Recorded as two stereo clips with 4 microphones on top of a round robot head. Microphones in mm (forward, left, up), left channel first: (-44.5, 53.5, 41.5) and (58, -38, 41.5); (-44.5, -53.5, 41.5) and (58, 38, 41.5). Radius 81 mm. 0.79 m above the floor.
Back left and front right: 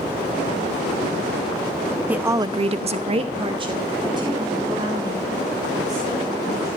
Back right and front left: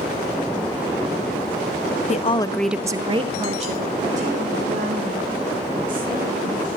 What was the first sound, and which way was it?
A woman speaking, 120° right.